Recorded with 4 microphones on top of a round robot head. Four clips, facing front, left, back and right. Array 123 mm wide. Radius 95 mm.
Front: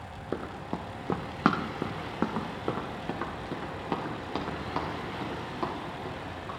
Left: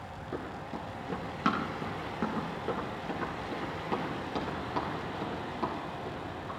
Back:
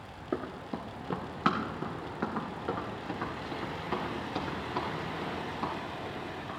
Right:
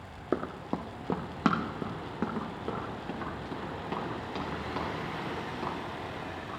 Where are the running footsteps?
80° right, 1.0 m; by 6.5 s 15° left, 5.5 m.